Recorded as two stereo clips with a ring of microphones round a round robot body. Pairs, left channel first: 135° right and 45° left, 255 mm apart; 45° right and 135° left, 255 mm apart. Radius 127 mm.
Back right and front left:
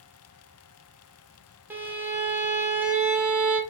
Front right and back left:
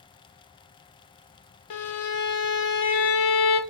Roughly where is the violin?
Ahead right.